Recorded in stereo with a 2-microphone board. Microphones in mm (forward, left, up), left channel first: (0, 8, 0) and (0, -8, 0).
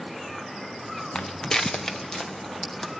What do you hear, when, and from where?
1.1 s footsteps: 60° left (ahead or behind), 0.5 m; by 2.9 s 40° left (ahead or behind), 3 m